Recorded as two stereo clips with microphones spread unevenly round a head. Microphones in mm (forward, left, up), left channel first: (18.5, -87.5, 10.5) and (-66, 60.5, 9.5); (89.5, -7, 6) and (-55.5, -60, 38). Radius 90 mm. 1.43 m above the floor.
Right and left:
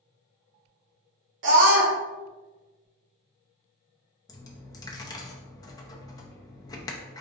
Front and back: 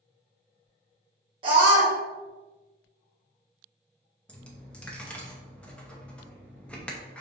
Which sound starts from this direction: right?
A dropped coin, at 4.3 s.